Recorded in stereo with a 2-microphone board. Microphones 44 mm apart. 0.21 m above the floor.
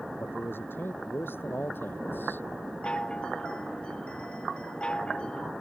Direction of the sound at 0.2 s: 55° left (ahead or behind).